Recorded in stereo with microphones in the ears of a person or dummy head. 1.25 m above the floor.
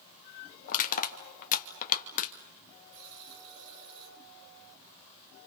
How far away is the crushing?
About 2.5 m.